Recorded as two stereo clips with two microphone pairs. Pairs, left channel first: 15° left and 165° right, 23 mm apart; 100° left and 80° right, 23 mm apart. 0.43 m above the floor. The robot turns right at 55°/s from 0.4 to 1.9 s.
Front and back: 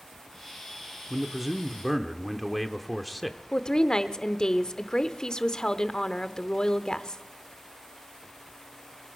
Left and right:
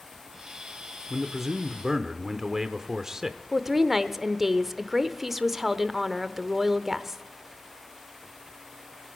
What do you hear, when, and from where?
1.1 s a man speaking: 130° right, 0.7 m; by 3.4 s 85° right, 0.7 m
3.5 s a woman speaking: 5° right, 0.8 m